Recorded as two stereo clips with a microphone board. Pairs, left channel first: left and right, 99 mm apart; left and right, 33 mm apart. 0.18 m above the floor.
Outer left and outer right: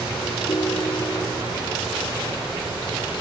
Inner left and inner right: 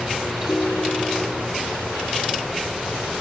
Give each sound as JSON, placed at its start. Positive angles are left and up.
{"t": 0.5, "sound": "a ringtone", "side_deg": 45, "distance_m": 2.5}